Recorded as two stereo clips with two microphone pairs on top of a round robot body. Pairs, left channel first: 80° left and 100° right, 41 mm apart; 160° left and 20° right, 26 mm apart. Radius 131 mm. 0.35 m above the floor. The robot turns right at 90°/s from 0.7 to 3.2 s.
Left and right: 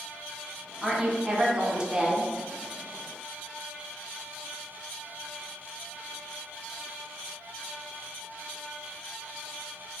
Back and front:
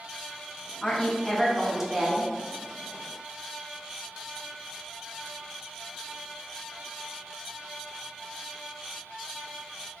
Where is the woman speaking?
170° right, 0.9 m; by 2.3 s 35° right, 0.9 m.